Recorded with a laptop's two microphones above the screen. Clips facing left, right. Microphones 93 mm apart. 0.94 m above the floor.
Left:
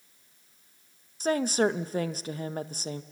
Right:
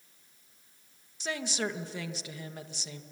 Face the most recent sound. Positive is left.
turn(degrees=45)  # may be behind; listen again after turning